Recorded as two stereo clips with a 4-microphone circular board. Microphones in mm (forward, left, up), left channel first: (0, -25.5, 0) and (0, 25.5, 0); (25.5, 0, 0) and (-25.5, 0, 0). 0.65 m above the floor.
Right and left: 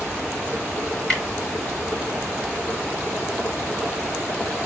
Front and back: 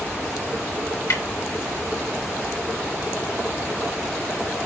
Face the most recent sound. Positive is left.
turn(degrees=-15)